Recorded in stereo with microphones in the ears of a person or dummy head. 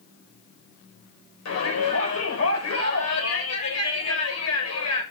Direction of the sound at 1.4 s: 80° left.